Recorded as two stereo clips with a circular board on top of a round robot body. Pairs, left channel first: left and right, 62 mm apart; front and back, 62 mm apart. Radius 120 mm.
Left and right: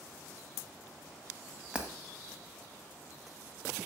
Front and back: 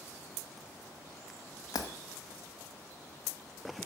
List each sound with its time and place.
1.7 s breaking glass: 15° right, 1.3 m